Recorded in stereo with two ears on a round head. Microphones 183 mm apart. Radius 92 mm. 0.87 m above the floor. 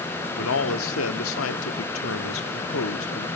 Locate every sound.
0.4 s a man speaking: 75° left (ahead or behind), 1.6 m